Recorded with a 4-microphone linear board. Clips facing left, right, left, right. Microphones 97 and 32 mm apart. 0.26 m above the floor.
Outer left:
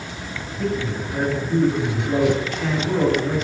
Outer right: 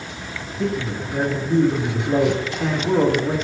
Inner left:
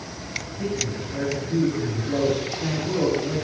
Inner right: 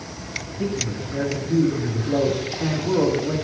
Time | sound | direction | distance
0.6 | a man speaking | 15° right (ahead or behind) | 1.7 m